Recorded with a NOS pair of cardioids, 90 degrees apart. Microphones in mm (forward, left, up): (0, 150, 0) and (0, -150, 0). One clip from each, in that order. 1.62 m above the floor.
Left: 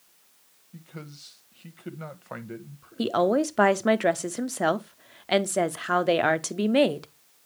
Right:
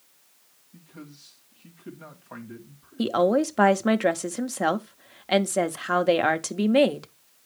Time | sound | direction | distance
0.7 | a man speaking | 45° left | 1.4 m
3.0 | a woman speaking | straight ahead | 0.6 m